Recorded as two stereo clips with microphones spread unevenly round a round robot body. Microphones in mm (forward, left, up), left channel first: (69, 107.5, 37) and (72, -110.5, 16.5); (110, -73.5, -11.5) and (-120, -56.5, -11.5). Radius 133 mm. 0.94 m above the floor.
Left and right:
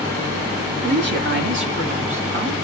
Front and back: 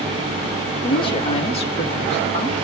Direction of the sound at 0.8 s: 70° right.